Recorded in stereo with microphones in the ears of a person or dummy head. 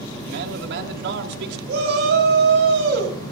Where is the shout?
55° right (ahead or behind), 7.5 m.